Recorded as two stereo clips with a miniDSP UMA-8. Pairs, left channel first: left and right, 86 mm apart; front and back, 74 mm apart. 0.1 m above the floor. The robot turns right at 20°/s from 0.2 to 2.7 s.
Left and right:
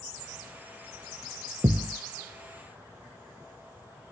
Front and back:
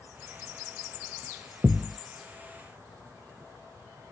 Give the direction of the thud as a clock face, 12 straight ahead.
3 o'clock.